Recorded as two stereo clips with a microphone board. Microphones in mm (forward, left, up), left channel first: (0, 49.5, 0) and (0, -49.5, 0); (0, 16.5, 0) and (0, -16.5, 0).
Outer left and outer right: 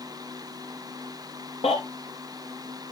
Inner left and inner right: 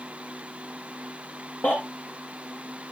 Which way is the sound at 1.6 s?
75° left (ahead or behind).